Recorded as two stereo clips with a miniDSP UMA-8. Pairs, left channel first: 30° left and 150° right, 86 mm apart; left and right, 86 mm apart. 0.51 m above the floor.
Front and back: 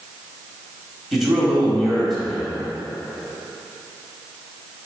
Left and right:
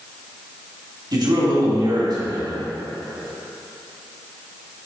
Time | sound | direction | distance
1.1 | a man speaking | 60° right | 2.5 m